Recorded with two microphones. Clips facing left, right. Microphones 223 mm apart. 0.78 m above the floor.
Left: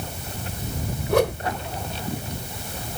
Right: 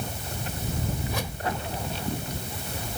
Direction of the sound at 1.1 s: 70° left (ahead or behind).